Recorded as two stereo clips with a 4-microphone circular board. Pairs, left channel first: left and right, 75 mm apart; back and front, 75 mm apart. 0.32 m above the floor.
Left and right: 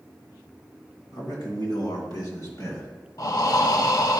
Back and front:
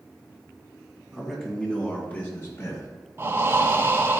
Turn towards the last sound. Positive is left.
turn(degrees=55)